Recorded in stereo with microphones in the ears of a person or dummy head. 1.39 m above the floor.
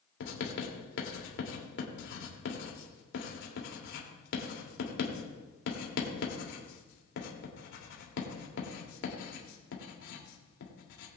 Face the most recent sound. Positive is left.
turn(degrees=70)  # may be behind; listen again after turning